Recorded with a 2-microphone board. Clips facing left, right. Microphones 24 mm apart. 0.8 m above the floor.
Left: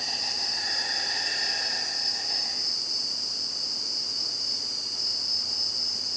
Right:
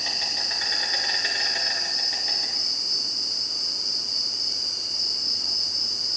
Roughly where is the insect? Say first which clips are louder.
Right 3 dB; right.